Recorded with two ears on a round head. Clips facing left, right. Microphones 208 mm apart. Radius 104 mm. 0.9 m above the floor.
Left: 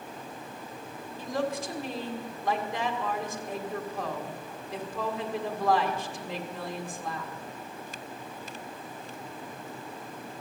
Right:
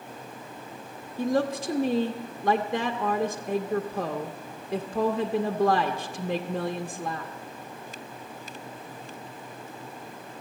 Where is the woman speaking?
55° right (ahead or behind), 0.7 m.